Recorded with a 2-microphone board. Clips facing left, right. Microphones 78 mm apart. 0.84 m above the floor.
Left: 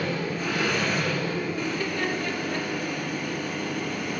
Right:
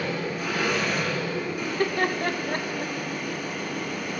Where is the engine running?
10° right (ahead or behind), 4 m.